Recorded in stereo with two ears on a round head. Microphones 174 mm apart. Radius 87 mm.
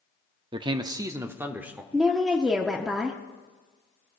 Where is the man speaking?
25° right (ahead or behind), 0.6 m; by 1.8 s 5° right (ahead or behind), 1.3 m.